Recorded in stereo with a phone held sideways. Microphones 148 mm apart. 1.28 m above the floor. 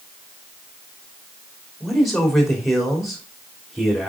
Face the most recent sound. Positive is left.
turn(degrees=0)  # may be behind; listen again after turning